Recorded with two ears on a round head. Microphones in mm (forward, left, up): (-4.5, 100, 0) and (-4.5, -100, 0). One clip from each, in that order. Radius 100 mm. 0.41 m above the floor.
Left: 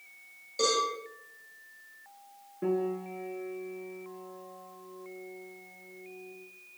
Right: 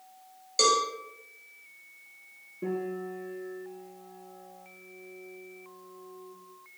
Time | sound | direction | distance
0.6 | a cowbell | 60° right (ahead or behind) | 9 m
2.6 | a piano | 45° left (ahead or behind) | 4.5 m